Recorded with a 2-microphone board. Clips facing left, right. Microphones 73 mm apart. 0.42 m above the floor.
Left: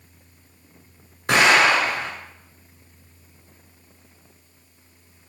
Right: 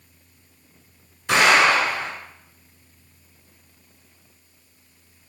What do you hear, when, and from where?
1.3 s an explosion: 55° left (ahead or behind), 1.9 m